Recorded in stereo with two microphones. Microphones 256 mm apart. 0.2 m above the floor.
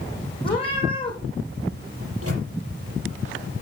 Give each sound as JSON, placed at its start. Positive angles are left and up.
{"t": 0.4, "sound": "a cat meowing", "side_deg": 20, "distance_m": 4.0}
{"t": 2.0, "sound": "a microwave", "side_deg": -65, "distance_m": 5.0}